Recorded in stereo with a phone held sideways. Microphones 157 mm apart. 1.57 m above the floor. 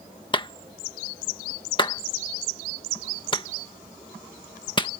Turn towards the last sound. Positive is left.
turn(degrees=30)  # may be behind; listen again after turning